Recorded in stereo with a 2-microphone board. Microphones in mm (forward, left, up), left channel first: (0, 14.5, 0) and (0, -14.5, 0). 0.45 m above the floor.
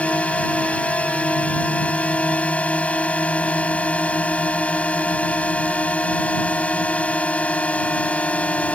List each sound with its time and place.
0.0 s a drone: 45° left (ahead or behind)